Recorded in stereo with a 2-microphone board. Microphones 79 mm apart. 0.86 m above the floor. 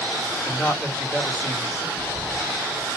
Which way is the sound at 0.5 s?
15° left (ahead or behind).